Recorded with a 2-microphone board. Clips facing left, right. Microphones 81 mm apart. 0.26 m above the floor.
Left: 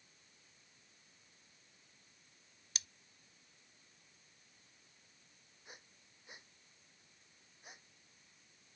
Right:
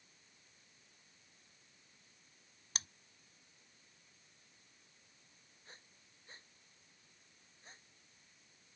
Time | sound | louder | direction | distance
2.8 | scissors | right 4 dB | 45° right (ahead or behind) | ?
5.7 | breathing | left 2 dB | 10° left (ahead or behind) | ?